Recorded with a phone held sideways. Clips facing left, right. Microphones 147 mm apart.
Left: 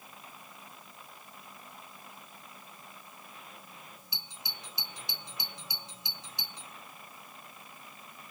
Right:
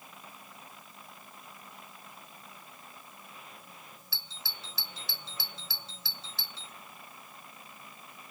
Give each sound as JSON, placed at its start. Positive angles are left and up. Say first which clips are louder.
{"t": 4.1, "sound": "a doorbell", "louder": "even", "side_deg": 15}